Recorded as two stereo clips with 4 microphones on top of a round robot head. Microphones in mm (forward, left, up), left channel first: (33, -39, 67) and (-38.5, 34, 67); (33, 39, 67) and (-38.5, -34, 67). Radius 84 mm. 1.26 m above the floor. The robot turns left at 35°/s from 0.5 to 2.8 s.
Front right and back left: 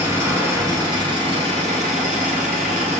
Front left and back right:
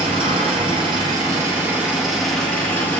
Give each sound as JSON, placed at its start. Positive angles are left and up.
{"t": 0.0, "sound": "an engine running", "azimuth_deg": -165, "distance_m": 0.7}